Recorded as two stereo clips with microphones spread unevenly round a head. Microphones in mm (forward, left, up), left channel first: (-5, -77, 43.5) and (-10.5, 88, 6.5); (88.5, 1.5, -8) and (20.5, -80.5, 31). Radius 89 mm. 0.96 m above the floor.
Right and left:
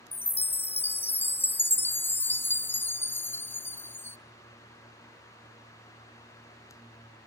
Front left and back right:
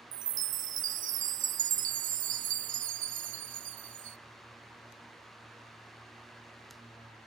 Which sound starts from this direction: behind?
A chime, at 0.1 s.